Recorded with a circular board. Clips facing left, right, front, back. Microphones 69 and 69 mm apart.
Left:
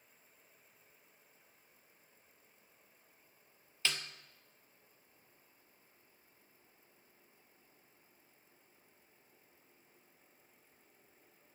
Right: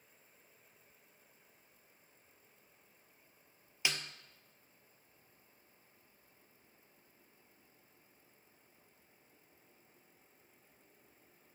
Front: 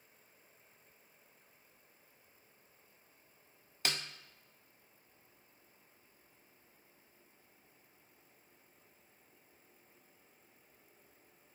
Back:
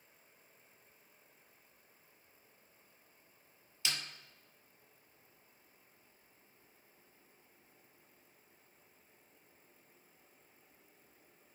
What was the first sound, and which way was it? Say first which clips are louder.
A snare drum: even, front 2 dB; 15° right.